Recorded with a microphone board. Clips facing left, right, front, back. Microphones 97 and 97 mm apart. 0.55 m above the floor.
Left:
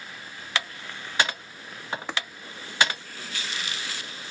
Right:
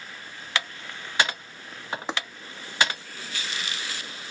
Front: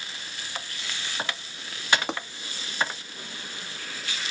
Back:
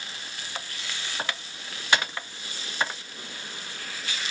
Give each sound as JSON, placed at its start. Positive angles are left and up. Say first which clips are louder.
{"t": 2.1, "sound": "tapping", "louder": "right 2 dB, front 7 dB", "azimuth_deg": -20}